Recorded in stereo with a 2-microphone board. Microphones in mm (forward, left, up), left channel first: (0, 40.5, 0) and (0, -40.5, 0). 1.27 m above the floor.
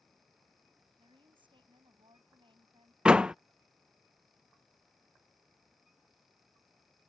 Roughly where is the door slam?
Centre.